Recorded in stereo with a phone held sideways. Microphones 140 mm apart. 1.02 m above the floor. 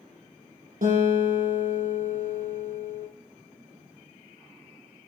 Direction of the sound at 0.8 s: 85° right.